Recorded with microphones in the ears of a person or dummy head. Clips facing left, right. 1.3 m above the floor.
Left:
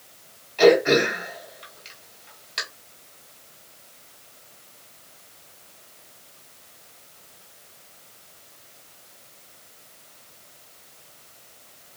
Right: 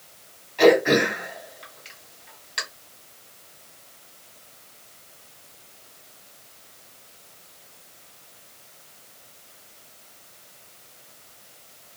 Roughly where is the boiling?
No boiling in this recording.